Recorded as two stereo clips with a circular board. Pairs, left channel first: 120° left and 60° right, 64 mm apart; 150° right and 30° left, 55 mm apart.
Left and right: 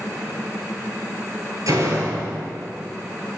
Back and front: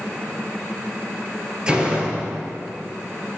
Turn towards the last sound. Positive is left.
turn(degrees=-40)